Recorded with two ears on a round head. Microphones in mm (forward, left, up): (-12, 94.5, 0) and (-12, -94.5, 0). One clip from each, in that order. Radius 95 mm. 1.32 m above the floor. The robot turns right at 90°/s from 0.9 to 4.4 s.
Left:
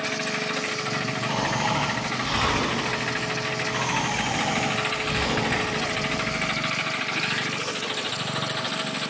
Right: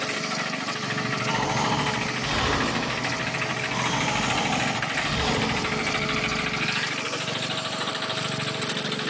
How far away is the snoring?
About 1.1 m.